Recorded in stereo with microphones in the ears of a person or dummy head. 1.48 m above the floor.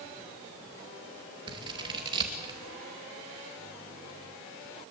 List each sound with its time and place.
1.5 s scissors: 25° right (ahead or behind), 2.5 m